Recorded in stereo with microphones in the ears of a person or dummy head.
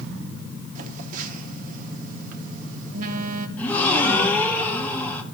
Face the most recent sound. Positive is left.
turn(degrees=10)  # may be behind; listen again after turning